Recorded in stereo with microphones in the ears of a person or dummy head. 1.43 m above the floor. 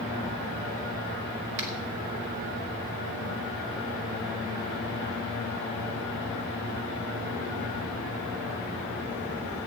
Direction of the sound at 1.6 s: 65° right (ahead or behind).